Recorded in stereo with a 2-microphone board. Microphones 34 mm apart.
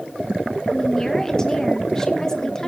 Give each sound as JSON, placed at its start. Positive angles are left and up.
{"t": 0.7, "sound": "a woman speaking", "side_deg": 15, "distance_m": 2.0}